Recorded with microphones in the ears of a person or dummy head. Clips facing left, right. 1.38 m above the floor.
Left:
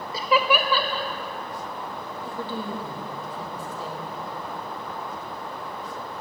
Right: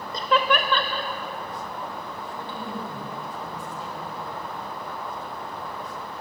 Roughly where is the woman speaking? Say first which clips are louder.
Left 6 dB; left.